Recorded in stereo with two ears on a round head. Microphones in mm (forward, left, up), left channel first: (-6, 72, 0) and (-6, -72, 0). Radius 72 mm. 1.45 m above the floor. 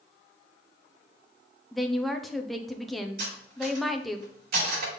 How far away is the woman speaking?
About 0.7 m.